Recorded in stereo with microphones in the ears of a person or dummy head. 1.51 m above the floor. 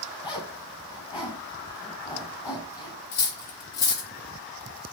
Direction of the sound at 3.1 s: 60° left (ahead or behind).